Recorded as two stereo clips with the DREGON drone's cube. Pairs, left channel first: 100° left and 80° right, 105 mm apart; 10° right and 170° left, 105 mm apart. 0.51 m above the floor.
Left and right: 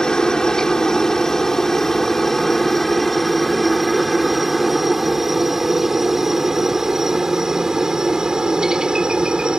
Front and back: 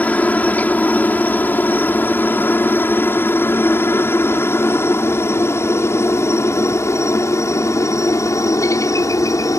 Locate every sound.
0.0 s a helicopter: 30° left; by 9.6 s 5° right